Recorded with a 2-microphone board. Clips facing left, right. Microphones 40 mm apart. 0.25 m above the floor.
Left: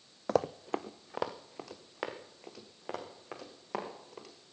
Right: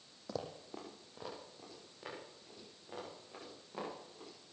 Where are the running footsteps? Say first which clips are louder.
Left 13 dB; 55° left (ahead or behind), 0.5 m; by 4.3 s 85° left, 6 m.